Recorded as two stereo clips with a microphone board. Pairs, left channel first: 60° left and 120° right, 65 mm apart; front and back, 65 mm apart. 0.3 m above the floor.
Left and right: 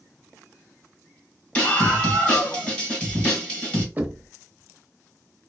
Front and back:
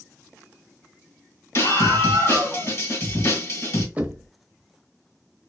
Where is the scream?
5° right, 1.4 m.